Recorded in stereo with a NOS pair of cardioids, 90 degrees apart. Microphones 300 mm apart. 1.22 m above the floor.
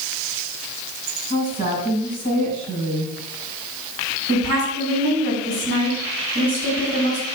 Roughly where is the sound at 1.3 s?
Right.